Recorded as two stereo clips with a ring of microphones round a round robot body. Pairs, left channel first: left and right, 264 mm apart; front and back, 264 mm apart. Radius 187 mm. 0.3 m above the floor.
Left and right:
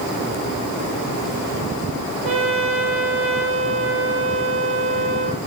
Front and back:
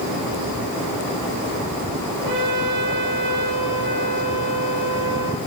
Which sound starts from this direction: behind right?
A trumpet, at 2.2 s.